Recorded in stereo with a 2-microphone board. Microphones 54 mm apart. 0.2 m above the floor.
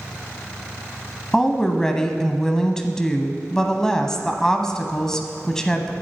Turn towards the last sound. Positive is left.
turn(degrees=10)  # may be behind; listen again after turning